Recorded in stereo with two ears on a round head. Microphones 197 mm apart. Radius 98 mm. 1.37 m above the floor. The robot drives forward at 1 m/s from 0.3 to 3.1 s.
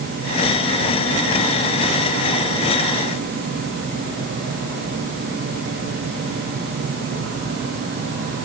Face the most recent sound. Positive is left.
No sound to turn to.